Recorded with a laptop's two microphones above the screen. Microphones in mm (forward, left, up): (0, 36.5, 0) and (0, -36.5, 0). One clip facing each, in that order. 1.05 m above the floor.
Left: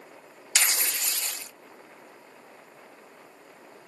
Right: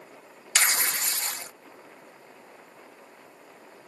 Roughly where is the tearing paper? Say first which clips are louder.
Right 3 dB; right.